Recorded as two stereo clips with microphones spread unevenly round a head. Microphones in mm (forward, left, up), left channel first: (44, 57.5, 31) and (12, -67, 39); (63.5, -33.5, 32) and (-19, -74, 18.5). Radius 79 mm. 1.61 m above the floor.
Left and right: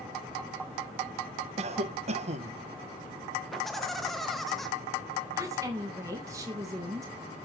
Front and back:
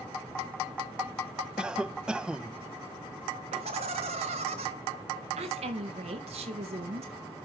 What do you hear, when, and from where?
1.6 s a cough: 70° right, 1.2 m
3.5 s laughter: 165° left, 1.4 m
5.4 s a woman speaking: 175° right, 2.5 m